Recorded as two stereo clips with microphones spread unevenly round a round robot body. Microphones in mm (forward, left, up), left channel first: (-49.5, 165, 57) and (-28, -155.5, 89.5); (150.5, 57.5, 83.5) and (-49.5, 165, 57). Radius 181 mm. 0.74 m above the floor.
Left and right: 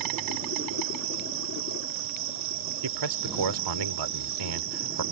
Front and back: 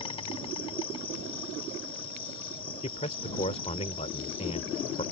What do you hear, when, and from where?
0.0 s an insect: 100° right
2.8 s a man speaking: 100° right